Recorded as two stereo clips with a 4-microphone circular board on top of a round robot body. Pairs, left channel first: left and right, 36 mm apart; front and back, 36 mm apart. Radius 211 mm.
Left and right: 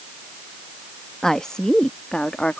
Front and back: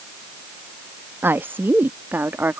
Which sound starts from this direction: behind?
A woman speaking, at 1.2 s.